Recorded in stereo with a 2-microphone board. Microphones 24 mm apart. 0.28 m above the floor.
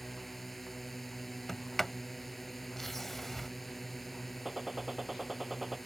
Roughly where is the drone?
Centre.